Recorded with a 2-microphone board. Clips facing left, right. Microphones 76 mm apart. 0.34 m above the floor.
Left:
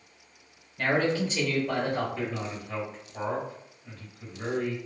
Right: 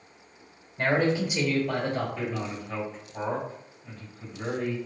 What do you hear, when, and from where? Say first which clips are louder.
0.8 s a man speaking: right 1 dB; 25° right (ahead or behind), 1.3 m; by 2.4 s 20° left (ahead or behind), 1.2 m
2.1 s a man speaking: right 1 dB; 5° left (ahead or behind), 1.9 m